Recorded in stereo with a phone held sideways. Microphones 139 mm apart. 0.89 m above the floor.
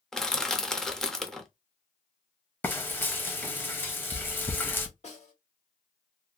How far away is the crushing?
About 0.5 m.